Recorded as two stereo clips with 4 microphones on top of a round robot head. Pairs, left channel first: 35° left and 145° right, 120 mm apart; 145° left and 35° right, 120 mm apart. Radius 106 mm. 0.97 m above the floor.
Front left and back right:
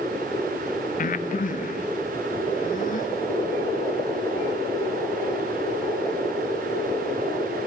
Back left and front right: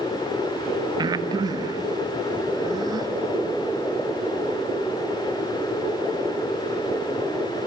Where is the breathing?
25° left, 1.2 m.